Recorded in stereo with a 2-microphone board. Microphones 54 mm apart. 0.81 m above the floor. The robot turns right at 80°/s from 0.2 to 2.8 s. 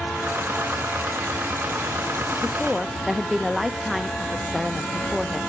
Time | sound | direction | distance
2.4 | a woman speaking | 160° left | 0.6 m